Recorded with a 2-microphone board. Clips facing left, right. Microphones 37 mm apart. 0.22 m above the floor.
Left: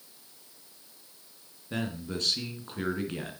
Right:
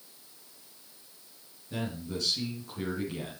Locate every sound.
1.7 s a man speaking: 50° left (ahead or behind), 3 m